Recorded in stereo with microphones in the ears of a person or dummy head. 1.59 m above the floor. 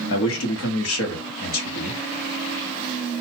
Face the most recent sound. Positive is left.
turn(degrees=85)